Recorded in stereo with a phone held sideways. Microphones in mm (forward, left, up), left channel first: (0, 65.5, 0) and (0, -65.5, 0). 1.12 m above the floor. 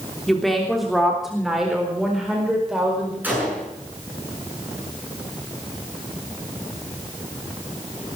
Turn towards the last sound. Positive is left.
turn(degrees=-15)  # may be behind; listen again after turning